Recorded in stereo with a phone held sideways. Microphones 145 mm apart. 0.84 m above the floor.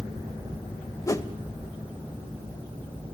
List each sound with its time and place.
1.1 s a whoosh: 20° left (ahead or behind), 0.6 m